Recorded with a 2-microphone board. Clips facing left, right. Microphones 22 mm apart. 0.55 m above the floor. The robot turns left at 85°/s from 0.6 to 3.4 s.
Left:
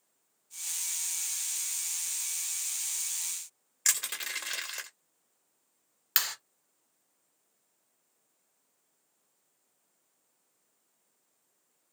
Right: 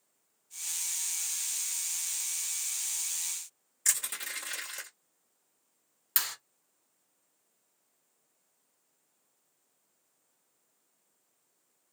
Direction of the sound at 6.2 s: 45° left (ahead or behind).